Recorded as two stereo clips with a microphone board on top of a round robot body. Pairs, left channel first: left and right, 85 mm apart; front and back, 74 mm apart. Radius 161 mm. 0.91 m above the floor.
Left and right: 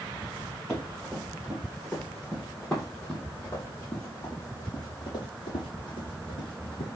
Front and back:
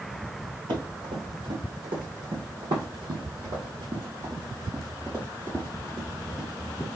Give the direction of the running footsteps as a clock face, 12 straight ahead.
6 o'clock.